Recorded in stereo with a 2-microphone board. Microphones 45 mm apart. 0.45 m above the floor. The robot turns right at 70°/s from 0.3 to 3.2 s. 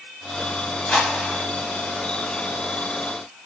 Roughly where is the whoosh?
Behind.